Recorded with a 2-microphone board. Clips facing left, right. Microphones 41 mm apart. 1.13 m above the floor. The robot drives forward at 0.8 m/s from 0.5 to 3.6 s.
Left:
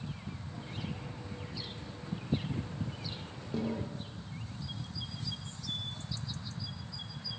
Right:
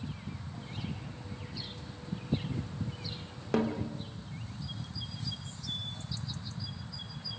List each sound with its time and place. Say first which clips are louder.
3.5 s a snare drum: right 5 dB; 85° right, 3 m